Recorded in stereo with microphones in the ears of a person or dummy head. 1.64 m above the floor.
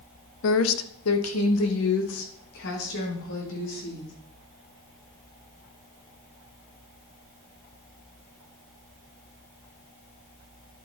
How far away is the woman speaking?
About 0.9 m.